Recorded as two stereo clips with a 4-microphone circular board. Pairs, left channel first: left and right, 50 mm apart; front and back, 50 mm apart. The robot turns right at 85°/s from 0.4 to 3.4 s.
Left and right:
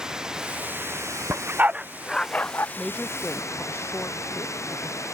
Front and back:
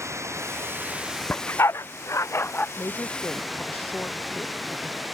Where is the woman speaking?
5° right; by 5.0 s 50° left.